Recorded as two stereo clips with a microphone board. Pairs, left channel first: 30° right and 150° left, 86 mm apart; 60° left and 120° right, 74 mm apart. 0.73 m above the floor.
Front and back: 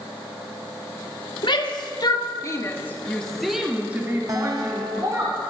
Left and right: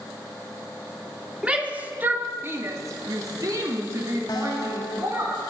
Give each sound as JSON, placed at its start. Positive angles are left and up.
{"t": 1.4, "sound": "a shout", "azimuth_deg": -45, "distance_m": 2.0}
{"t": 4.3, "sound": "a guitar", "azimuth_deg": 100, "distance_m": 2.5}